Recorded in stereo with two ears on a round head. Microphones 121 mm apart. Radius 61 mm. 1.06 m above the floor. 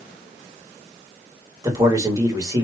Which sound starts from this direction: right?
A man speaking, at 1.6 s.